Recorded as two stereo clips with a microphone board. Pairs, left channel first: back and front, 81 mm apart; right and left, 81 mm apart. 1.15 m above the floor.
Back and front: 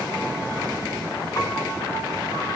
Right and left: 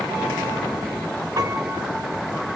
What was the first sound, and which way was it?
A piano, 135° left.